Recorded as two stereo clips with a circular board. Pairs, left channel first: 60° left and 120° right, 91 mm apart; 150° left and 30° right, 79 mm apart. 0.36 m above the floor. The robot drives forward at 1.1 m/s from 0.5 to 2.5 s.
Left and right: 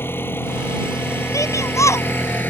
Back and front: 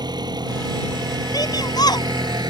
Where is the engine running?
5° right; by 2.5 s 10° right.